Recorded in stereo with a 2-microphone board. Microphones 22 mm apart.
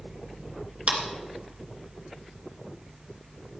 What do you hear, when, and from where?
0.9 s a clap: 55° right (ahead or behind), 2.5 m